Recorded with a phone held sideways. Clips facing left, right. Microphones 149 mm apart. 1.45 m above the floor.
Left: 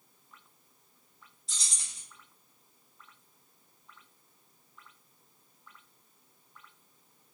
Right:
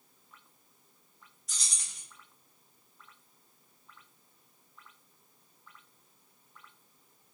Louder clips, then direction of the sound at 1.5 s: Even; 25° left (ahead or behind).